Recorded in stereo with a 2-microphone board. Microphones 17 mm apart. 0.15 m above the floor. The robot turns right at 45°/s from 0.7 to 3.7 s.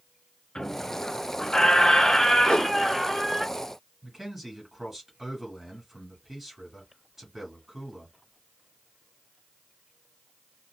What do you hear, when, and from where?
0.6 s a squeak: 75° left, 0.7 m; by 3.5 s 160° right, 0.7 m
2.5 s a whoosh: 55° left (ahead or behind), 0.5 m; by 2.8 s 50° left (ahead or behind), 0.5 m
4.0 s a man speaking: 5° right (ahead or behind), 1.5 m